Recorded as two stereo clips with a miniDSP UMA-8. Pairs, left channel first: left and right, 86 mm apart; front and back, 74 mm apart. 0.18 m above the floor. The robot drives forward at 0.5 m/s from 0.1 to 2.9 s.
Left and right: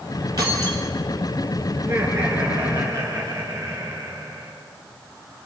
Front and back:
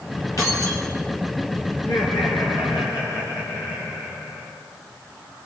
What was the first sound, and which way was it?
Keys jangling, 45° right.